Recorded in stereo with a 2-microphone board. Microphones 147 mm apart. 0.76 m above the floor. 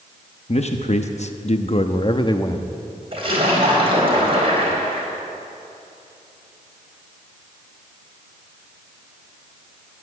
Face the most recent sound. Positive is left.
turn(degrees=-40)  # may be behind; listen again after turning